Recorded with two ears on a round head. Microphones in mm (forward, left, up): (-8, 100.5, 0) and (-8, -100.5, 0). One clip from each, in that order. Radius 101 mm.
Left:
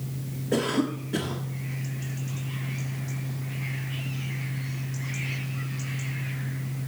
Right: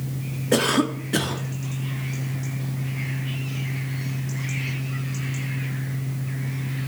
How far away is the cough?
About 1.2 m.